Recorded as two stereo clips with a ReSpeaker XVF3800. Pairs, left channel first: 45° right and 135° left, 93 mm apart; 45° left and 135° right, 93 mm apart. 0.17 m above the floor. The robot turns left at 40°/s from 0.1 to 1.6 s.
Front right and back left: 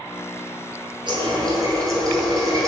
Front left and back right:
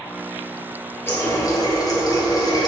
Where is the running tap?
110° left, 1.8 m; by 2.7 s 90° left, 1.8 m.